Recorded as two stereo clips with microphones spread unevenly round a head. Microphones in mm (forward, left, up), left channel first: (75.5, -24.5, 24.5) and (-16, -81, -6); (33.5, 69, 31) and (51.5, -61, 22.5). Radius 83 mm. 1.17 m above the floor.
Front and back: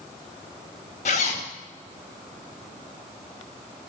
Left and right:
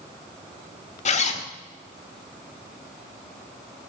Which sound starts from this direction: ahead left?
A zipper, at 1.1 s.